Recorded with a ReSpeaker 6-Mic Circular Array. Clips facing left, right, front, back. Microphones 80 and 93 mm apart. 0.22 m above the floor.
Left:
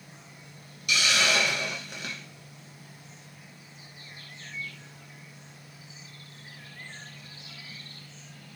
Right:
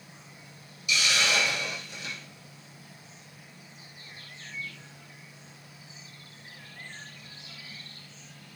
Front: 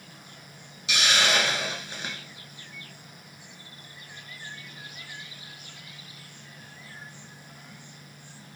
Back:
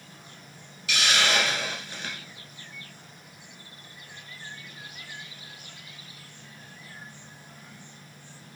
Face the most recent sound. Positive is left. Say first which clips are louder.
# left 2 dB, even
turn(degrees=65)